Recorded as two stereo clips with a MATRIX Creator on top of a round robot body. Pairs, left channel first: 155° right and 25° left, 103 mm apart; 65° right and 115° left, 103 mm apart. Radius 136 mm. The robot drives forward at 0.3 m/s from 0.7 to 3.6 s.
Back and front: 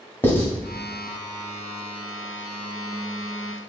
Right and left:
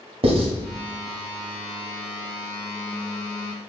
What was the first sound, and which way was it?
Writing, 130° left.